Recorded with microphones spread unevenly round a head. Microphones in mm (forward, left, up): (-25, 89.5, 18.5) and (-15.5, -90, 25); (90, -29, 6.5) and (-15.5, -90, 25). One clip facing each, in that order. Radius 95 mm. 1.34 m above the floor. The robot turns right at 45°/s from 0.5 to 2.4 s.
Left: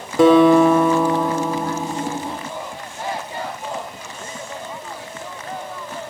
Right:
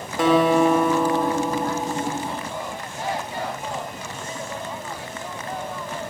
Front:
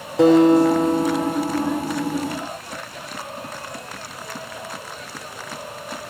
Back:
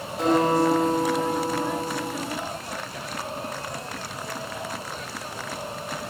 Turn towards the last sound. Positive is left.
turn(degrees=165)